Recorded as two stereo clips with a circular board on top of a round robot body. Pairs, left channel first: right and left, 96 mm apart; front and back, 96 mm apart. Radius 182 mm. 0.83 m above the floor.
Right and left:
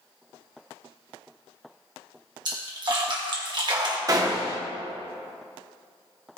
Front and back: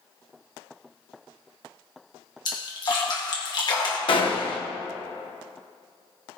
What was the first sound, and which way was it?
A splash, 45° left.